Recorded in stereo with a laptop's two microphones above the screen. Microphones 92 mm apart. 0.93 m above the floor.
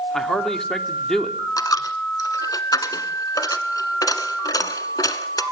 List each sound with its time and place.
0.1 s a man speaking: 5° left (ahead or behind), 2 m
1.6 s a dropped coin: 45° left (ahead or behind), 1.3 m